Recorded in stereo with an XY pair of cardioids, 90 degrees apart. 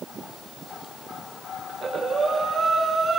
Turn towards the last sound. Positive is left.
turn(degrees=-55)